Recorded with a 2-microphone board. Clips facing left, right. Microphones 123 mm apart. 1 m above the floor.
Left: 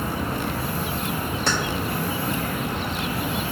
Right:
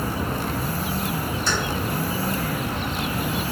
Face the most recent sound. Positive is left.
turn(degrees=70)  # may be behind; listen again after turning